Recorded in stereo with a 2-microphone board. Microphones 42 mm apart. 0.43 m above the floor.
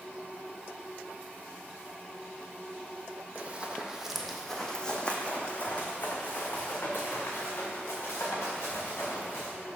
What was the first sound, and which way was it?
Running footsteps, 35° right (ahead or behind).